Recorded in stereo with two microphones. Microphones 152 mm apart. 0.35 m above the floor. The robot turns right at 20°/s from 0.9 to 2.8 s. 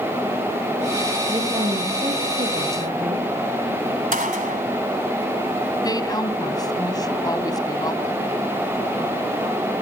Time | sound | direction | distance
1.3 | a woman speaking | 150° right | 5.5 m
4.1 | a gunshot | 60° right (ahead or behind) | 1.6 m
5.8 | a woman speaking | 25° left (ahead or behind) | 3 m